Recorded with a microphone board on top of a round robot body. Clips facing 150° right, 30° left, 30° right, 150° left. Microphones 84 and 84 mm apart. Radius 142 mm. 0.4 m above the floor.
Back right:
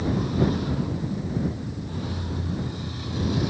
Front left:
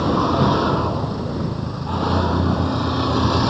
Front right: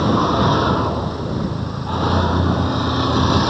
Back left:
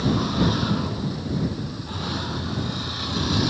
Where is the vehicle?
10° left.